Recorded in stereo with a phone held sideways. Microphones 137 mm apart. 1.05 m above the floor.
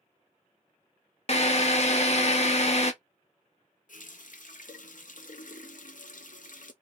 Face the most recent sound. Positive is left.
turn(degrees=70)  # may be behind; listen again after turning